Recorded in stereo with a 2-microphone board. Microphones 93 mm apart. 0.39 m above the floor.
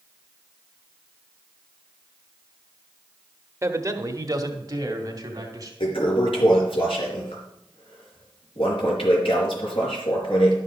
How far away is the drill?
No drill in this recording.